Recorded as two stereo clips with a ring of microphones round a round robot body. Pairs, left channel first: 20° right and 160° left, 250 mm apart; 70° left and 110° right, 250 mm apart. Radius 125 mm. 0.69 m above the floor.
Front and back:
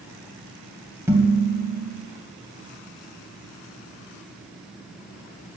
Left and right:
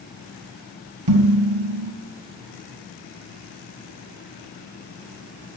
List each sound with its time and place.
1.1 s dishes clattering: 120° right, 2.5 m